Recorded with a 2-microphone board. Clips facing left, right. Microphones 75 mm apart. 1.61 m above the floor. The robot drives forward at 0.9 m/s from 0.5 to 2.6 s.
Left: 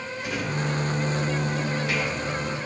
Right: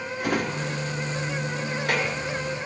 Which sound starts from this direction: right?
A drawer, at 0.2 s.